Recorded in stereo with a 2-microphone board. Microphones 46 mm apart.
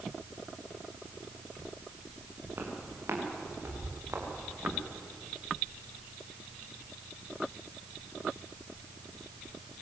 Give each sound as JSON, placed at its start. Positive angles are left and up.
{"t": 2.6, "sound": "footsteps", "side_deg": -55, "distance_m": 7.0}